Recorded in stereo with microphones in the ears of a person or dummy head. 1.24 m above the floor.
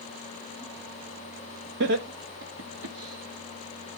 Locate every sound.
1.8 s laughter: 60° right (ahead or behind), 1.2 m; by 4.0 s 85° right, 2.5 m